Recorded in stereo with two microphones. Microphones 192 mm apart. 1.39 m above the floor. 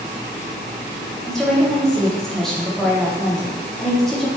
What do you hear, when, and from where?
1.2 s a woman speaking: centre (ahead or behind), 1.0 m